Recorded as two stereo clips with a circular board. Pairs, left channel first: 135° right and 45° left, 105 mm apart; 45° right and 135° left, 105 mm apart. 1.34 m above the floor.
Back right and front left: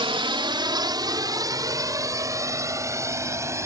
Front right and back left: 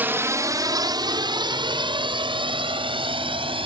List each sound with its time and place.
0.0 s a drone: 65° left; by 3.7 s 105° left